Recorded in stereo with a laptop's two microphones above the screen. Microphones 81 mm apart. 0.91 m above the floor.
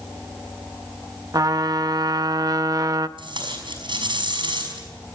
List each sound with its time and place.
1.3 s a trumpet: 50° right (ahead or behind), 0.7 m
3.2 s tape being pulled: 80° right, 5.5 m